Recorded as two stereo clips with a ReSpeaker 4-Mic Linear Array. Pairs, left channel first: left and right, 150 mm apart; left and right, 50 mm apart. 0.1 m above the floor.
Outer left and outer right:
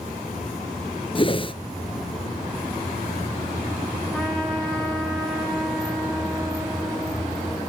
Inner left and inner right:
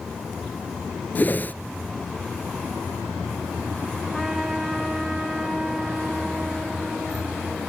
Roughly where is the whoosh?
Left.